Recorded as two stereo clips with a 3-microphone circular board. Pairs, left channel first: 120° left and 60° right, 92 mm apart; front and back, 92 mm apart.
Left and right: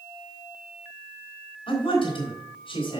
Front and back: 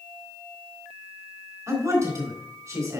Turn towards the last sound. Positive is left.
turn(degrees=115)